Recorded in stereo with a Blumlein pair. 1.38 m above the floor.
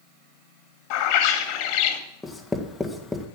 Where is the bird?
45° left, 2 m.